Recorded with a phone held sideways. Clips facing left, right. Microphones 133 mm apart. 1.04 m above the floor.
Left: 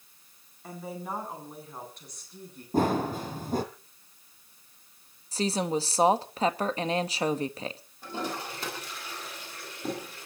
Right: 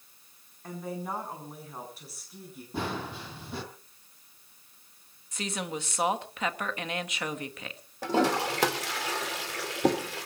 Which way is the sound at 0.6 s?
5° left (ahead or behind).